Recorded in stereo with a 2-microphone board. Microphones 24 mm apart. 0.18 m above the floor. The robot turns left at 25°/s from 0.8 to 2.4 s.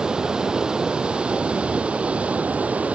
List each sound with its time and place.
0.0 s running water: 35° right, 1.5 m; by 2.9 s 75° right, 1.5 m